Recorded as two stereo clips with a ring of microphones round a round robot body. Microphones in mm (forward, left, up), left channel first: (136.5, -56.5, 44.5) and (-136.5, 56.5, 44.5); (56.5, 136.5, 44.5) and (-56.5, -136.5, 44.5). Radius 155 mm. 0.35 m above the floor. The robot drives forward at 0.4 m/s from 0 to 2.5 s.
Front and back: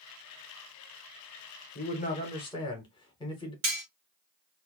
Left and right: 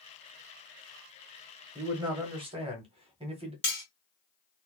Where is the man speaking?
40° right, 1.1 m; by 3.5 s 75° right, 1.0 m.